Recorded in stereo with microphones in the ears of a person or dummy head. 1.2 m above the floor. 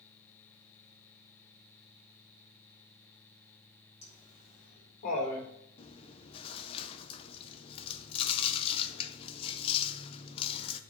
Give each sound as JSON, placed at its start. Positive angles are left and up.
{"t": 4.0, "sound": "laughter", "side_deg": 35, "distance_m": 3.0}
{"t": 5.8, "sound": "chewing", "side_deg": 30, "distance_m": 0.8}